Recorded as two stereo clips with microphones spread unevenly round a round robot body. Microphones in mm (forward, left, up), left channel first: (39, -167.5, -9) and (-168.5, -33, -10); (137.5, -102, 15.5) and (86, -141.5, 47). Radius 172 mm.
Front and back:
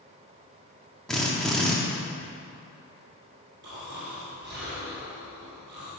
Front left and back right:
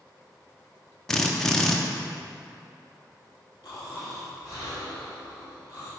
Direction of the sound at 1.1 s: 55° left.